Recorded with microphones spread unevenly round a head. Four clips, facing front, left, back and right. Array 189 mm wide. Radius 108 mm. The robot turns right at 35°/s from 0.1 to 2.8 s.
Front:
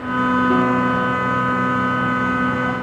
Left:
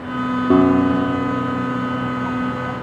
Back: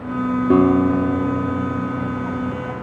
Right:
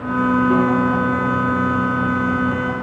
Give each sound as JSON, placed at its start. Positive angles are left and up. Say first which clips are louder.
{"t": 0.5, "sound": "a guitar", "louder": "left 3 dB, back 3 dB", "azimuth_deg": 145, "distance_m": 1.1}